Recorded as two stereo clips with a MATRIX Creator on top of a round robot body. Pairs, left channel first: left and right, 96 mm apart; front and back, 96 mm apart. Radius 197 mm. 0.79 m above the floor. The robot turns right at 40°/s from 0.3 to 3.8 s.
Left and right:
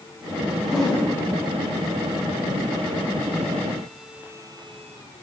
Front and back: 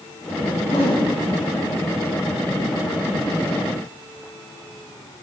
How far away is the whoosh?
About 4.5 m.